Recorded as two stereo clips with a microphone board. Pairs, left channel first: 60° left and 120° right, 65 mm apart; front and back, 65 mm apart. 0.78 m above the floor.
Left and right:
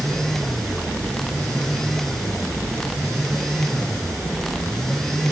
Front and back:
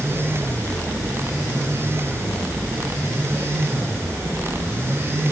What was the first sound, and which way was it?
Only background noise.